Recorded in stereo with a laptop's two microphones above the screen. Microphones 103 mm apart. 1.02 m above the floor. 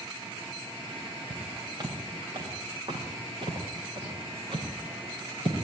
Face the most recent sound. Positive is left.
turn(degrees=-50)  # may be behind; listen again after turning